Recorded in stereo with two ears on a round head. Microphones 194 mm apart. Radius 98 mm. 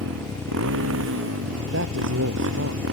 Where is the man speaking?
55° right (ahead or behind).